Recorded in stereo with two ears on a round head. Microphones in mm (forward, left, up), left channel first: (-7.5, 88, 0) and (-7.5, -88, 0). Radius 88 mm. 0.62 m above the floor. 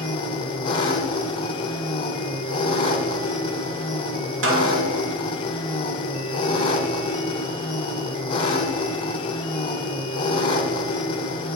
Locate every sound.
0.0 s an engine running: 25° left (ahead or behind), 1.0 m
4.4 s a snare drum: 65° right (ahead or behind), 2 m